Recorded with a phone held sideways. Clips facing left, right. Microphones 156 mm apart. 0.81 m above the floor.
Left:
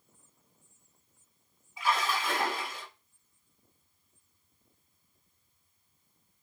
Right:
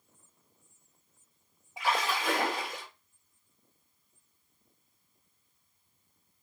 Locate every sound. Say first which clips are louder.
1.8 s a splash: even; 90° right, 1.4 m